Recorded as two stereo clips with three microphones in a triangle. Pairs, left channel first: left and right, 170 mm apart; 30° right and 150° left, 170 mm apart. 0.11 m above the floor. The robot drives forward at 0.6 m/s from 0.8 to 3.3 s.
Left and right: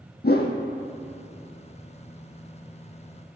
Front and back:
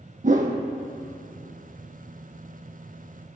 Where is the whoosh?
110° left, 0.8 m.